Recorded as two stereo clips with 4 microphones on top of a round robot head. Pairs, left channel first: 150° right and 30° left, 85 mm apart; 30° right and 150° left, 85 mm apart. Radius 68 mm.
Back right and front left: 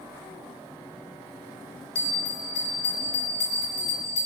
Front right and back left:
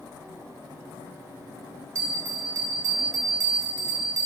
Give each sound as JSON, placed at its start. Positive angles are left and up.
{"t": 1.9, "sound": "a bell", "azimuth_deg": -155, "distance_m": 1.0}